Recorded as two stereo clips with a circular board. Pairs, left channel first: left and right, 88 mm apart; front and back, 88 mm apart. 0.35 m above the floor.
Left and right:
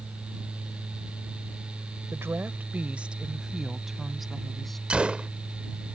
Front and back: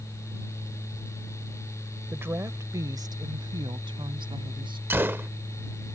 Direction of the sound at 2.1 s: 130° right.